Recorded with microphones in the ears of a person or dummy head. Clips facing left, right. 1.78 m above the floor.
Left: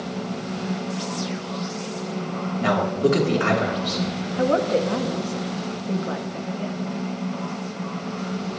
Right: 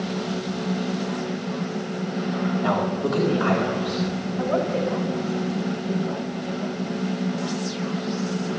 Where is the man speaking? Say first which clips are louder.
Left 7 dB; 35° left (ahead or behind), 2.5 m.